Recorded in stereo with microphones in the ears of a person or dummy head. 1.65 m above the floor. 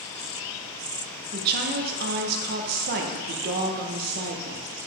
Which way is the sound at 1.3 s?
55° right (ahead or behind).